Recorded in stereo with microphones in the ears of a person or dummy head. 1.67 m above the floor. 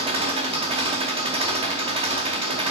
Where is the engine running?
35° right (ahead or behind), 0.9 m.